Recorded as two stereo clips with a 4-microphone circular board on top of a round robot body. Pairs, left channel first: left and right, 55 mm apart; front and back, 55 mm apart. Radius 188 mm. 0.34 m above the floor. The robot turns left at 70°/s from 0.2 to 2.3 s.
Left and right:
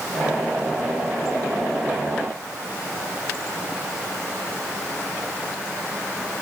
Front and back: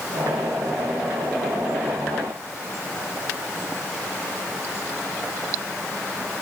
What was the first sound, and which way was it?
Only background noise.